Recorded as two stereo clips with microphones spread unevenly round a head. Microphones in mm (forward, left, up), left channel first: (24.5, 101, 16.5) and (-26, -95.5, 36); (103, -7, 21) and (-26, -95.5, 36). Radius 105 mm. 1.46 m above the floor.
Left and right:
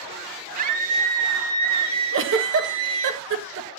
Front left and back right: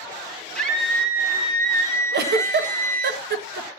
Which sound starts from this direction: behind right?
A giggle, at 2.1 s.